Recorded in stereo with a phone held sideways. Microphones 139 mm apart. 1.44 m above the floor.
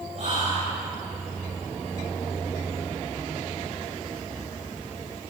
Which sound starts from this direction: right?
Whispering, at 0.1 s.